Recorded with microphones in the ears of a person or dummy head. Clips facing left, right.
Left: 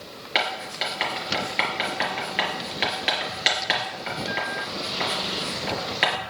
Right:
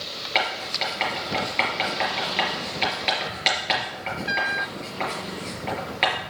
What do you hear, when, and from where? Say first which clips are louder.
0.3 s writing: right 1 dB; 10° left (ahead or behind), 3.5 m